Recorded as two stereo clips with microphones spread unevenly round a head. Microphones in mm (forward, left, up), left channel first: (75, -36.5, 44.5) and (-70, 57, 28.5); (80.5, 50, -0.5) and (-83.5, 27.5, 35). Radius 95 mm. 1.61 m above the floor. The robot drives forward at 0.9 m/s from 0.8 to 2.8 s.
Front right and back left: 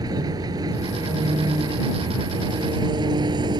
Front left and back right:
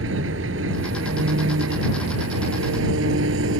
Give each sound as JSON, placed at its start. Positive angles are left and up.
{"t": 0.0, "sound": "an engine running", "azimuth_deg": -145}